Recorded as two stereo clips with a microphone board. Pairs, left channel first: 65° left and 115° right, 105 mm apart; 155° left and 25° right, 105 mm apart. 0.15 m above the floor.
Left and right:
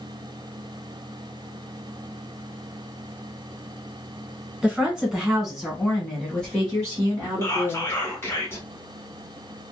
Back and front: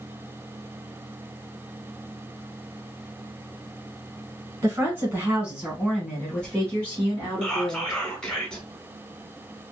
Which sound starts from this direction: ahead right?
A woman speaking, at 4.6 s.